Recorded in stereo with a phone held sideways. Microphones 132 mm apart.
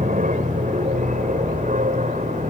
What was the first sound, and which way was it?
An aircraft, 75° right (ahead or behind).